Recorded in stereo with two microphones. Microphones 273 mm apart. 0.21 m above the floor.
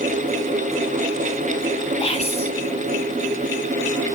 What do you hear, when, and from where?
2.0 s whispering: 20° left (ahead or behind), 1.1 m